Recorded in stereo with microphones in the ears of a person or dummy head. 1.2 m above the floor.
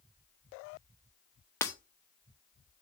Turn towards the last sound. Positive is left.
turn(degrees=15)  # may be behind; listen again after turning